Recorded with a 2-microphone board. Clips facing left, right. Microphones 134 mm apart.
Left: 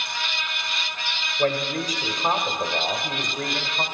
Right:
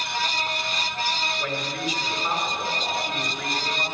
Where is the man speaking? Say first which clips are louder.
Left 5 dB; 50° left (ahead or behind), 2.0 m.